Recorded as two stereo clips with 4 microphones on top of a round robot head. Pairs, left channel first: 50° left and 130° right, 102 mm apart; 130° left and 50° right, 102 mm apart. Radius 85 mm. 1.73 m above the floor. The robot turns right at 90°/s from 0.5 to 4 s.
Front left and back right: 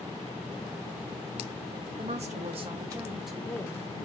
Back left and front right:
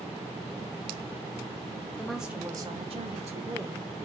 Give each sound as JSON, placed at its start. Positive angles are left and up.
{"t": 2.0, "sound": "a woman speaking", "azimuth_deg": -155, "distance_m": 0.7}